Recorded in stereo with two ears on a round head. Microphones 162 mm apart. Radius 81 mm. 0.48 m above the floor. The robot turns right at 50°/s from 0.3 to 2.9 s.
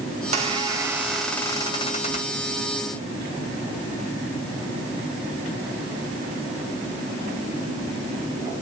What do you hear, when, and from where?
0.2 s a squeak: 45° right, 1.9 m; by 2.4 s 60° left, 1.9 m